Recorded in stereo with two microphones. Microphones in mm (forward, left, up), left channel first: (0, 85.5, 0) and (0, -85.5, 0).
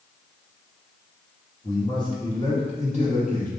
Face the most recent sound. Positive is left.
turn(degrees=50)  # may be behind; listen again after turning